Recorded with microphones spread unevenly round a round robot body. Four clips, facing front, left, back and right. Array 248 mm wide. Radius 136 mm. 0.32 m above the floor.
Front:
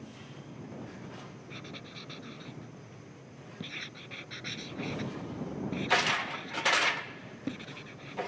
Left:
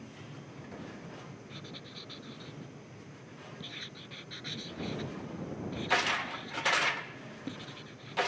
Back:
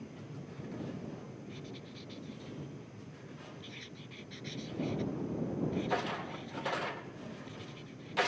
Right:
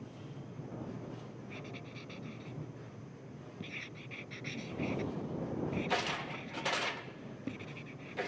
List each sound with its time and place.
1.5 s writing: 10° left